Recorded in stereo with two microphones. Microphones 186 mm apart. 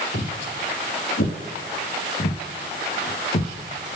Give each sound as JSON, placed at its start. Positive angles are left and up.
{"t": 0.1, "sound": "footsteps", "side_deg": 70, "distance_m": 2.5}